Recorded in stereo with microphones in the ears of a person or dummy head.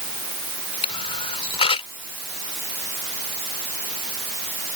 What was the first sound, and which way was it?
A camera shutter, 35° left (ahead or behind).